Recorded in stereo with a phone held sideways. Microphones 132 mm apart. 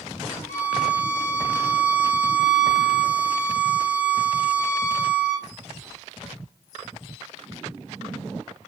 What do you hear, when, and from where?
0.5 s a violin: 80° left, 0.8 m